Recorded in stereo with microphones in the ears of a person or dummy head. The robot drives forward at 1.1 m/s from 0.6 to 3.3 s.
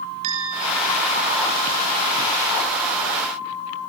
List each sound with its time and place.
0.2 s a bell: 35° right (ahead or behind), 4.5 m; by 1.5 s 45° right (ahead or behind), 3.5 m